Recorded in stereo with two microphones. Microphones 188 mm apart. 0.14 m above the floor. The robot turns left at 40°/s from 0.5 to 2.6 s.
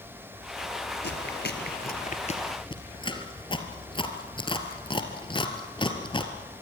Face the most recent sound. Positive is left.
turn(degrees=25)  # may be behind; listen again after turning